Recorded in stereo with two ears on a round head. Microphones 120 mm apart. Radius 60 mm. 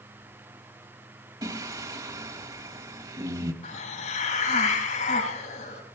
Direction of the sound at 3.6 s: 60° left (ahead or behind).